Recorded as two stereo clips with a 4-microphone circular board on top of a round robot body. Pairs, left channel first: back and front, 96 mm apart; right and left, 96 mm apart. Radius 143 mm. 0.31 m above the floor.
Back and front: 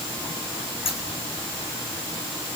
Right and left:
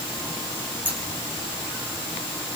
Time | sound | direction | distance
0.8 | scissors | 160° left | 5 m